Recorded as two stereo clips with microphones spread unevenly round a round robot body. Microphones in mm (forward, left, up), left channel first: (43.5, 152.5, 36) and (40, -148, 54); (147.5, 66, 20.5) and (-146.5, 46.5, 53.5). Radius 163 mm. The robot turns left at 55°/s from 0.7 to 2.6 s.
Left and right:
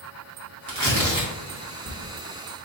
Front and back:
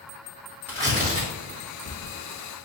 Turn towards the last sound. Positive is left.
turn(degrees=165)